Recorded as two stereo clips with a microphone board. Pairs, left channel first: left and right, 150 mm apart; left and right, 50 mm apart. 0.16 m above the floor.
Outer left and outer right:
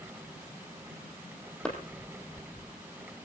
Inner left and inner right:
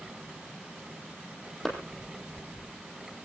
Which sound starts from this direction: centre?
A clap, at 1.6 s.